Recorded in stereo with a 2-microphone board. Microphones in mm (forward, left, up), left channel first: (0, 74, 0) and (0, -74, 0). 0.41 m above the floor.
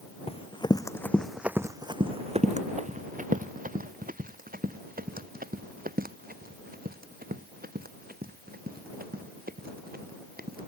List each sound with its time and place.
0.3 s running footsteps: 40° left (ahead or behind); by 10.6 s 85° right